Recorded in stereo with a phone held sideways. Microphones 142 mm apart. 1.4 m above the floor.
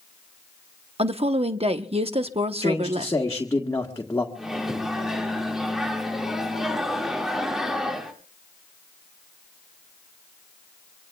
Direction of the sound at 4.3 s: 5° right (ahead or behind).